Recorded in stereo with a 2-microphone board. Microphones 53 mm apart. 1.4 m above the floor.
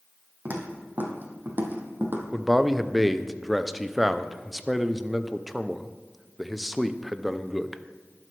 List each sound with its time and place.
0.5 s footsteps: 40° right (ahead or behind), 3 m; by 2.2 s 45° right (ahead or behind), 2 m
2.3 s a man speaking: 5° right (ahead or behind), 0.6 m